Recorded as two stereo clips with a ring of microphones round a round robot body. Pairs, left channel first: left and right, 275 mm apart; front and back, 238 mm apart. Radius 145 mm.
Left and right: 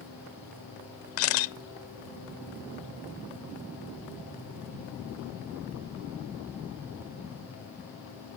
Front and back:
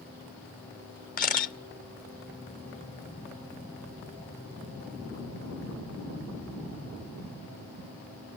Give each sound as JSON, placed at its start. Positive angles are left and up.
{"t": 1.2, "sound": "a camera shutter", "azimuth_deg": 55, "distance_m": 0.7}